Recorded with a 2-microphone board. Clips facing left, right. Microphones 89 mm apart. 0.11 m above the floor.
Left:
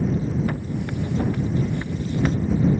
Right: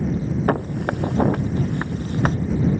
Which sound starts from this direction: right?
Footsteps, at 0.5 s.